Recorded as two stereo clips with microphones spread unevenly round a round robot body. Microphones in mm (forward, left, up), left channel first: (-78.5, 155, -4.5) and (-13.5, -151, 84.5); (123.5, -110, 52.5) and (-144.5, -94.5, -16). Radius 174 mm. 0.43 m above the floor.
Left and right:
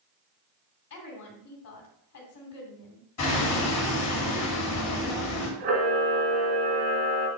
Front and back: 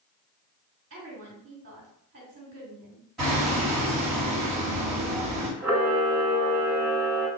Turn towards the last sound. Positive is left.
turn(degrees=-90)